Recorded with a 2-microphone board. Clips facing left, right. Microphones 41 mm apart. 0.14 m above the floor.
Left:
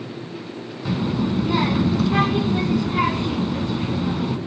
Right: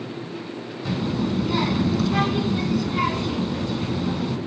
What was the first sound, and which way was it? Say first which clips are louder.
A child speaking: left 2 dB; 20° left (ahead or behind).